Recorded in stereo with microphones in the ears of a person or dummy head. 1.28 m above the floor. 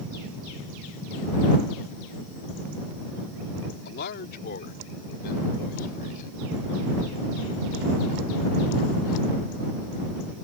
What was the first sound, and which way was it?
A man speaking, 50° left (ahead or behind).